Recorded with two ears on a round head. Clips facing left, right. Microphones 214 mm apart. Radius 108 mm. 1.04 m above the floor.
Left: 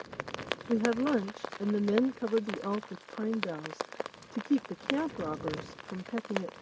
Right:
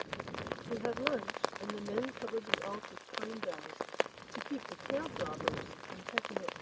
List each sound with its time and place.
0.7 s a woman speaking: 65° left (ahead or behind)